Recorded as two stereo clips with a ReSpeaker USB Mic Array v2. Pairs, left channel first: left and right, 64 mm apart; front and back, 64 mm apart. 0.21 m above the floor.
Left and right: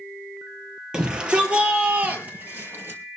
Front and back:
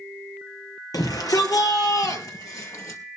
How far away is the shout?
About 4.5 m.